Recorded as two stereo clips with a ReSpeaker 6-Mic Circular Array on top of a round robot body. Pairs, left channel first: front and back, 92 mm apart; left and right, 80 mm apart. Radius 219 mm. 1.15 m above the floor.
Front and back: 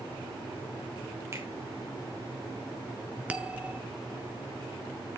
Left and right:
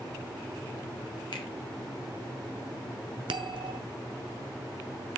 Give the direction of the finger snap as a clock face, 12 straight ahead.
8 o'clock.